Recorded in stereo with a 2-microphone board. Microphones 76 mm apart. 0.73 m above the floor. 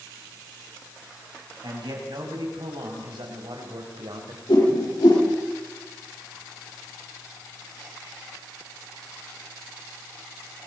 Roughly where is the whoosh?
Left.